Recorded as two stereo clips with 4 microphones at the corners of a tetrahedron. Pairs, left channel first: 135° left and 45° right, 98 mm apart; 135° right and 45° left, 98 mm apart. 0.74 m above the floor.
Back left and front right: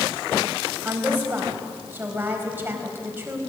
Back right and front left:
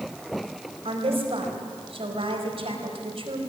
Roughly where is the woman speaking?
Ahead left.